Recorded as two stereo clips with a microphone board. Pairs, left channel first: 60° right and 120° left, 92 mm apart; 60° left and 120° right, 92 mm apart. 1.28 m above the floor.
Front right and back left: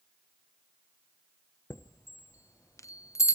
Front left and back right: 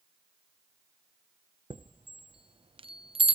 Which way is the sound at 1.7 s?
115° right.